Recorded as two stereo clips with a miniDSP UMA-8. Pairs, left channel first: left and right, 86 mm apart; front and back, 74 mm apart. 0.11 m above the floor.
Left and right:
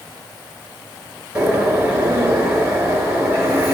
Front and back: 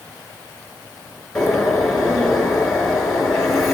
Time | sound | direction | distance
1.4 | a bird | 80° right | 1.8 m